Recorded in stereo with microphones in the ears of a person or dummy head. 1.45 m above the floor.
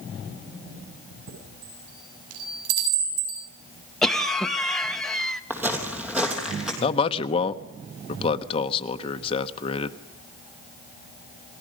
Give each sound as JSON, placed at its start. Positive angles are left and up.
{"t": 1.3, "sound": "a chime", "side_deg": -85, "distance_m": 7.0}
{"t": 4.0, "sound": "a cough", "side_deg": 0, "distance_m": 1.2}
{"t": 5.5, "sound": "footsteps", "side_deg": -10, "distance_m": 3.5}
{"t": 6.8, "sound": "a man speaking", "side_deg": 30, "distance_m": 1.0}